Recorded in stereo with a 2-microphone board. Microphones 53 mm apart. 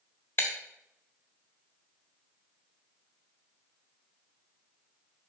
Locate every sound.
0.4 s breaking glass: 45° left (ahead or behind), 1.4 m